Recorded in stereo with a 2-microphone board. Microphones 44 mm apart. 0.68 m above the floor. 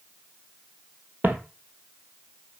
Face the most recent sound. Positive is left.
turn(degrees=-50)  # may be behind; listen again after turning